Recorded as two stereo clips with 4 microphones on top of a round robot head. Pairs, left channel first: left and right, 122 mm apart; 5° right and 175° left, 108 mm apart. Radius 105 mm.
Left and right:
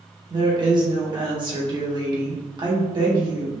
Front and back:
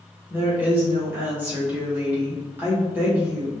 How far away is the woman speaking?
About 1.7 m.